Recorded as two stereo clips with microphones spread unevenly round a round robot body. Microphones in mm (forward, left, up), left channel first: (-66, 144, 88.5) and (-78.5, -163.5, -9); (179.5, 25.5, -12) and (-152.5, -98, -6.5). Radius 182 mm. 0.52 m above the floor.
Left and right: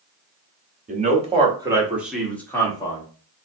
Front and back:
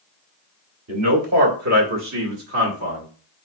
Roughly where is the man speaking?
Behind right.